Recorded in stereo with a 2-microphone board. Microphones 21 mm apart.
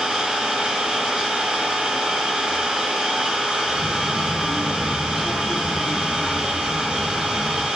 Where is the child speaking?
35° right (ahead or behind), 1.3 m.